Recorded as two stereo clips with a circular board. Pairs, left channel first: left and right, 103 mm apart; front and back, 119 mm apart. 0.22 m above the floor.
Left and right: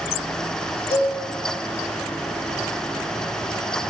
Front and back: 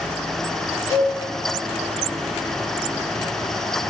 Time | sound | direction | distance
0.9 | a cowbell | 55° right | 1.3 m